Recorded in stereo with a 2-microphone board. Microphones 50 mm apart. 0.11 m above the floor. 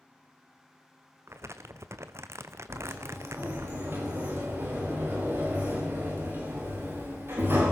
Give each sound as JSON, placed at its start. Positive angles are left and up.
{"t": 1.3, "sound": "crumpling", "side_deg": -70, "distance_m": 1.3}
{"t": 2.7, "sound": "a sliding door", "side_deg": -55, "distance_m": 9.0}